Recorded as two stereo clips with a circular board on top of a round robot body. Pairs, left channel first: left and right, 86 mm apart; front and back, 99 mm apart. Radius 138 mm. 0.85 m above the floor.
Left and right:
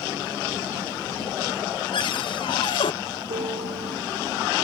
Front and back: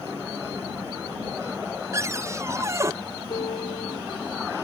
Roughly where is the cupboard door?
Behind left.